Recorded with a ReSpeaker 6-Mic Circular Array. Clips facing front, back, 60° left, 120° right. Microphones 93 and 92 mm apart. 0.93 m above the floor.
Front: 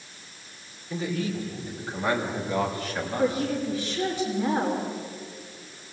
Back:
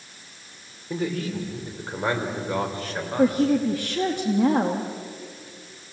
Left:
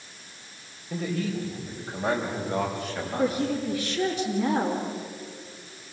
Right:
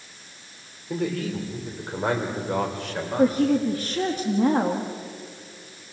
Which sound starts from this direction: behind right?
A man speaking, at 0.9 s.